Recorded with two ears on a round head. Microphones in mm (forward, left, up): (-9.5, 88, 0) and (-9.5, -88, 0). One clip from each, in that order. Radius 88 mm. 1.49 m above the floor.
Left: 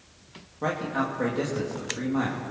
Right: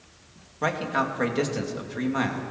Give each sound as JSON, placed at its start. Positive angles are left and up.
{"t": 0.6, "sound": "a man speaking", "side_deg": -55, "distance_m": 3.0}